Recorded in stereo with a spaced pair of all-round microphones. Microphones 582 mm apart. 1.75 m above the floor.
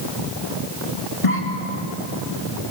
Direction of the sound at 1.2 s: 60° left (ahead or behind).